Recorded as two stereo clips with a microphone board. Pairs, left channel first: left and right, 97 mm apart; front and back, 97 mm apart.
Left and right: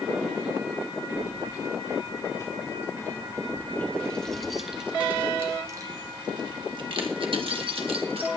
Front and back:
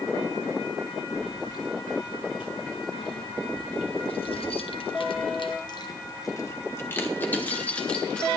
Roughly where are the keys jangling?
Ahead left.